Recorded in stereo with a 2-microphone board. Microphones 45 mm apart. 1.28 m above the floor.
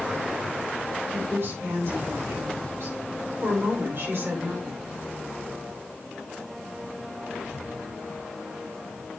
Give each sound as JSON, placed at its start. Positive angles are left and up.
{"t": 1.1, "sound": "a woman speaking", "side_deg": -65, "distance_m": 5.0}